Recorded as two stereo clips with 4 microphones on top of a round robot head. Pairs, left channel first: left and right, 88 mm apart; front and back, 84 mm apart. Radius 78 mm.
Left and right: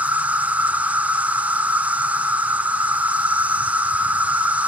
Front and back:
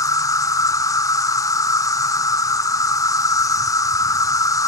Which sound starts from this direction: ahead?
An insect, at 0.0 s.